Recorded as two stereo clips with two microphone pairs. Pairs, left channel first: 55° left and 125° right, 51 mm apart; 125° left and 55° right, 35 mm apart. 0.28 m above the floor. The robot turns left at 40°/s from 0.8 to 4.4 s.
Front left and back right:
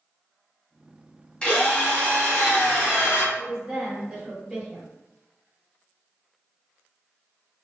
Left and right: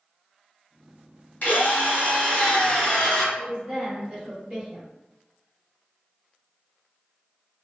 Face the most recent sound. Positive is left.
turn(degrees=-75)